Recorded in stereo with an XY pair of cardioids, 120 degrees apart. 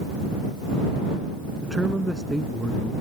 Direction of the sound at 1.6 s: 10° right.